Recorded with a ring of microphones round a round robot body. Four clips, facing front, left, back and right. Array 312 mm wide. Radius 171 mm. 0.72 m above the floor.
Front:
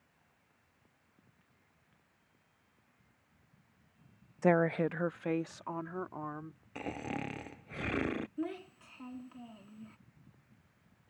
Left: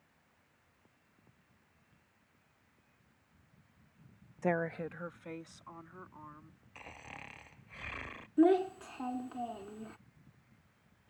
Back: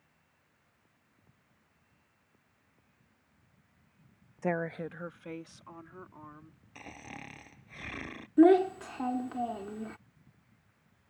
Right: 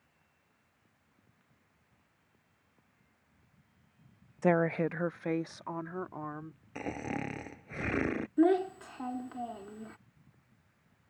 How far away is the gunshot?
I don't hear a gunshot.